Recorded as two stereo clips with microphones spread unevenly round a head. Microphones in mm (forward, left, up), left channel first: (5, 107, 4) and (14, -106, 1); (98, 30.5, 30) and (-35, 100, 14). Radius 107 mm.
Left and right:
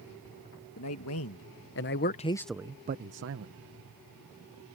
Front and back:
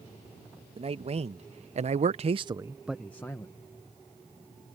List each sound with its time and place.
0.8 s a man speaking: 105° left; by 3.5 s 105° right